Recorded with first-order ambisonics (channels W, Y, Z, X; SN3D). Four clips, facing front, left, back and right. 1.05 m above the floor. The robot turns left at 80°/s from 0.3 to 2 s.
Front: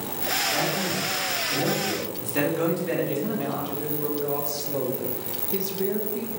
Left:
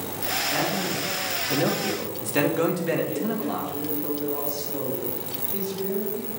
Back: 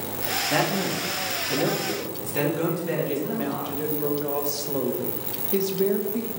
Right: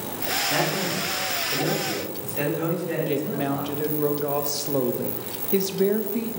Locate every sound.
0.5 s a man speaking: 160° right, 1.6 m; by 4.1 s 80° left, 1.6 m
3.1 s a woman speaking: 100° right, 0.7 m